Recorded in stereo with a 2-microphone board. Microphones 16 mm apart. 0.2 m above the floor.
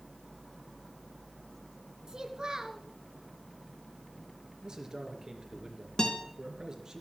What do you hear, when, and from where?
2.1 s a child speaking: 55° right (ahead or behind), 1.9 m
4.6 s a man speaking: 50° right (ahead or behind), 3 m
6.0 s a guitar: 55° left (ahead or behind), 2.5 m